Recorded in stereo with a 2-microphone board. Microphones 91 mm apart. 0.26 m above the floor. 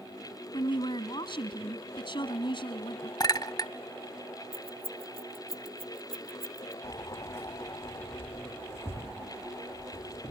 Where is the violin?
I don't hear a violin.